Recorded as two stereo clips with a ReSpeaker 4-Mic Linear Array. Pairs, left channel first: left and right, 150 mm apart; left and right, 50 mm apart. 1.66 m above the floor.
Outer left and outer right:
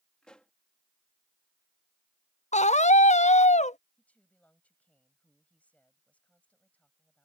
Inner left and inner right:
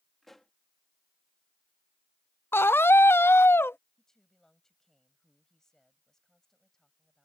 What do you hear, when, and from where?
0.2 s a pop: 5° left (ahead or behind)
2.5 s a scream: 50° left (ahead or behind)
4.0 s a woman speaking: 10° left (ahead or behind)